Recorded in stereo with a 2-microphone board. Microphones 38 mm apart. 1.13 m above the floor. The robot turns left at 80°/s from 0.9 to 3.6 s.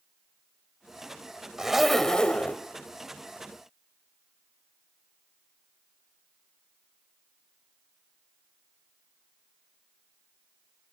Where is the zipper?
160° right, 1.2 m; by 2.6 s 115° left, 1.2 m.